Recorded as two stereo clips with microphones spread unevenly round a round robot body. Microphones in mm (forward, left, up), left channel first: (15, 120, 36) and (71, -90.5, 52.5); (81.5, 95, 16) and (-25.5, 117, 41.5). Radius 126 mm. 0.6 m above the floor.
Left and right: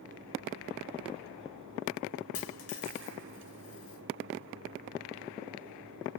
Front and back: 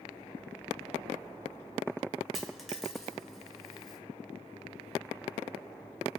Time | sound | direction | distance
2.3 | a dropped coin | 85° left | 1.2 m